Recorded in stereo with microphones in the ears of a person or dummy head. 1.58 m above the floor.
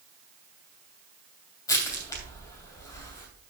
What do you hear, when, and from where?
1.7 s crushing: 20° left (ahead or behind), 2.5 m